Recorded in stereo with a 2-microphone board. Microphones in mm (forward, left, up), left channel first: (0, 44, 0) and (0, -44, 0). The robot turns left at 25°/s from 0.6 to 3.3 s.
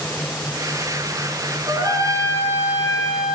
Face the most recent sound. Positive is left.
turn(degrees=-175)